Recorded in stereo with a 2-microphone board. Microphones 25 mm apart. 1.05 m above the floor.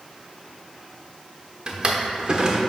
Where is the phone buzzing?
No phone buzzing in this recording.